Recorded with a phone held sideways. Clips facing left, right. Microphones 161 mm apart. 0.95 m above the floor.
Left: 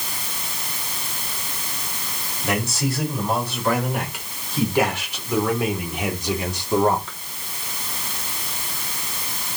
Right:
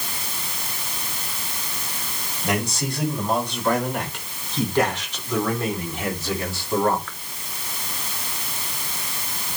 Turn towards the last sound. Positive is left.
turn(degrees=20)  # may be behind; listen again after turning